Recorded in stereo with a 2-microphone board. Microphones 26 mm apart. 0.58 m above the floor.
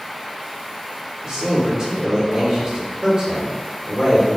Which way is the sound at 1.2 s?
25° right (ahead or behind).